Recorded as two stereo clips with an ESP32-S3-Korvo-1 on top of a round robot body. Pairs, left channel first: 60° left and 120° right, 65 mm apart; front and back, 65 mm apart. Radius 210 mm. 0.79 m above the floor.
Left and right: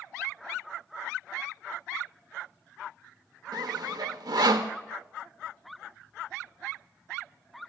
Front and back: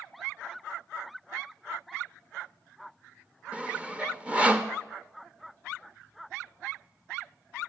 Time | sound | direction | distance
3.5 | sawing | 105° right | 0.7 m